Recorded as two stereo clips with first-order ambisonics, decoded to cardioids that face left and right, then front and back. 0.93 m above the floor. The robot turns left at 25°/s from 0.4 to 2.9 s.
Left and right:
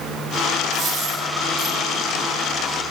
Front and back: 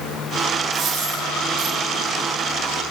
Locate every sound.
0.7 s a dropped coin: 160° right, 5 m; by 1.8 s 175° left, 5 m